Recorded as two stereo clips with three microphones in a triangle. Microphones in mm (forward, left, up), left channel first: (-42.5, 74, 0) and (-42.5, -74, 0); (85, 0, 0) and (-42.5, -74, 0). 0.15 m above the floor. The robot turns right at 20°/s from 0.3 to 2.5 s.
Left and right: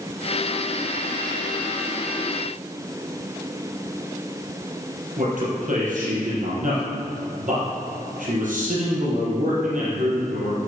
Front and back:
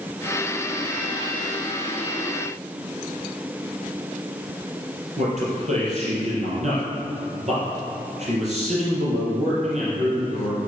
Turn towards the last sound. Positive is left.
turn(degrees=-115)